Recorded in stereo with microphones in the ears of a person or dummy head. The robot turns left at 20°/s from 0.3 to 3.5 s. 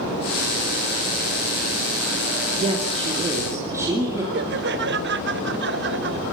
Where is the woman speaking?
35° right (ahead or behind), 3 m; by 4.2 s 15° right (ahead or behind), 3 m.